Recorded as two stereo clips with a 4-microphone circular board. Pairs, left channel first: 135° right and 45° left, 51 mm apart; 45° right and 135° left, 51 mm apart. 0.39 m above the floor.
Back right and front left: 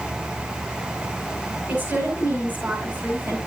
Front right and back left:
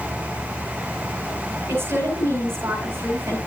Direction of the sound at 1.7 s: 95° left.